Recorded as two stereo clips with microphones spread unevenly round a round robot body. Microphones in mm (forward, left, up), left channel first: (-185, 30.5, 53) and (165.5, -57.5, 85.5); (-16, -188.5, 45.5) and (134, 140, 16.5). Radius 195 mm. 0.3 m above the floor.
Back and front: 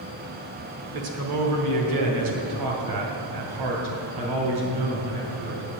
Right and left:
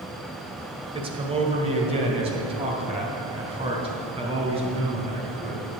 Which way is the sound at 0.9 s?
5° left.